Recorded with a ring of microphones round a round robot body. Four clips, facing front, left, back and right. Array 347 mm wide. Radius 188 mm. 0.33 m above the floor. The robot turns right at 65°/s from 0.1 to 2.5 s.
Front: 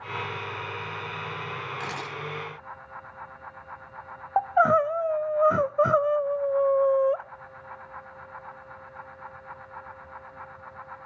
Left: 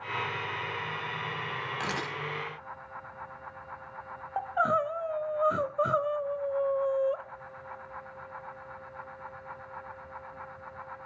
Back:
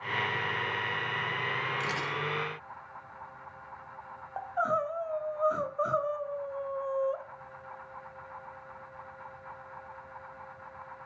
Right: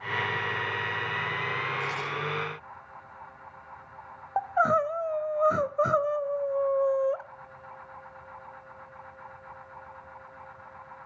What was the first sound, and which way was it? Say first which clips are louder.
A camera shutter: right 1 dB, back 1 dB; 85° left.